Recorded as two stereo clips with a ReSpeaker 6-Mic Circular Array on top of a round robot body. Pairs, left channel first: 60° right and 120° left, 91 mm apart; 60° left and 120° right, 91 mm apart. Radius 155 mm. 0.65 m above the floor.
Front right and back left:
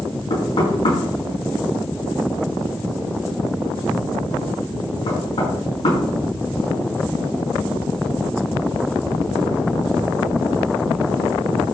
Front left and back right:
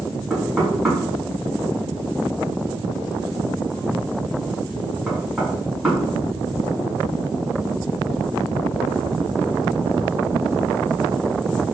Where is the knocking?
35° right, 5.5 m.